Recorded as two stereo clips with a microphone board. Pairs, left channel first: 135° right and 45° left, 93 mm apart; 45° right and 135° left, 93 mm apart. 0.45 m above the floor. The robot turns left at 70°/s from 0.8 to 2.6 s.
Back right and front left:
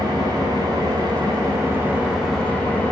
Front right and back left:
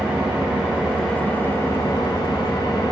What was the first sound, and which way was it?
An engine running, 60° left.